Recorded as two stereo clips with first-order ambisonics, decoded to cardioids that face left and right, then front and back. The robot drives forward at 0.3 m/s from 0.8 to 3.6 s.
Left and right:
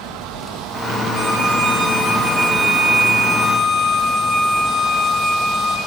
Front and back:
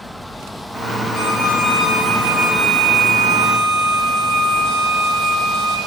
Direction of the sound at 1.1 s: 10° right.